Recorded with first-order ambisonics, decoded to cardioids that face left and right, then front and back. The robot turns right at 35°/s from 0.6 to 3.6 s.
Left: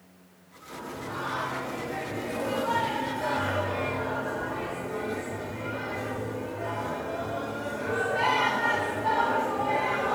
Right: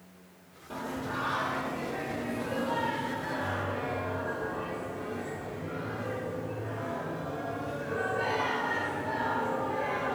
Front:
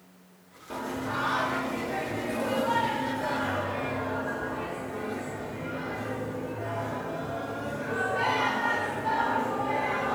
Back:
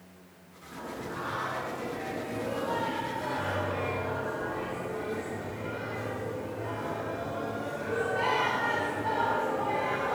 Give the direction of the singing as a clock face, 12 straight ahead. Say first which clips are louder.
Right 1 dB, front 6 dB; 12 o'clock.